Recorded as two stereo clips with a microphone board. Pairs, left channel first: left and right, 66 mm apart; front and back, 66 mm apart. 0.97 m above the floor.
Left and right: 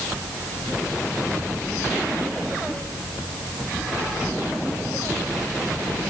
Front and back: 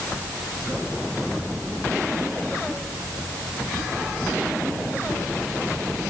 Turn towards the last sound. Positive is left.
No sound to turn to.